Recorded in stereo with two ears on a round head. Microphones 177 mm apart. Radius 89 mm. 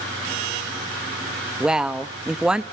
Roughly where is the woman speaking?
Centre.